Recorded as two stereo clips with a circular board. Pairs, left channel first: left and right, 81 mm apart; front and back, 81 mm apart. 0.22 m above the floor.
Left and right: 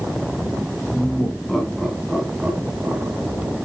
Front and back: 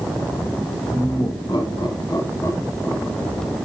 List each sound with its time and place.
0.9 s laughter: 25° left, 3 m; by 3.5 s 75° right, 2.5 m